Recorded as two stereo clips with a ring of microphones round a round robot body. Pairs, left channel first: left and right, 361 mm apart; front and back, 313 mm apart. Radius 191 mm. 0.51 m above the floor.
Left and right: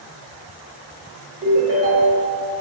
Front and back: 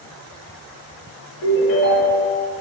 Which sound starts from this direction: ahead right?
A ringtone, at 1.4 s.